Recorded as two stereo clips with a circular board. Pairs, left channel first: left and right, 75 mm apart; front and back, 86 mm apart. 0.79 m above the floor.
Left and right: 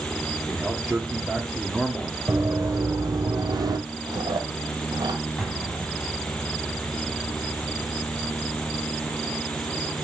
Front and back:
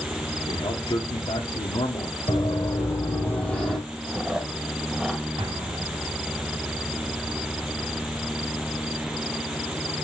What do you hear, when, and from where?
0.5 s a man speaking: 5° right, 1.4 m
2.3 s running footsteps: 35° right, 2 m; by 3.8 s 90° right, 1.6 m
4.1 s chewing: 100° right, 1.4 m
5.4 s an explosion: 175° left, 2.5 m